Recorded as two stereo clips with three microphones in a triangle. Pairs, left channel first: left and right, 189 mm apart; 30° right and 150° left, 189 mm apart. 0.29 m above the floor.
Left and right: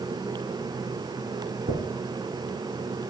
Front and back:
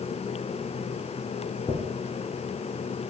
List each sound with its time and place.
1.7 s a dropped coin: 105° right, 1.3 m